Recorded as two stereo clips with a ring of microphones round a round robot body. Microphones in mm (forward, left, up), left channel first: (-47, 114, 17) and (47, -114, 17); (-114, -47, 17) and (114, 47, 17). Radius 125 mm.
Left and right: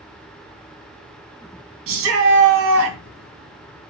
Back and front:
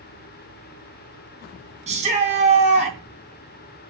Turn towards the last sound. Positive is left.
turn(degrees=-40)